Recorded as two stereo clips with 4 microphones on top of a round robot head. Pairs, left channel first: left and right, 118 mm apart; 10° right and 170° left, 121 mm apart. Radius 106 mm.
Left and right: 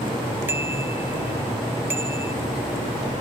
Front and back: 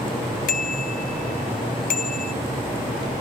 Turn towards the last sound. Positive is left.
turn(degrees=-15)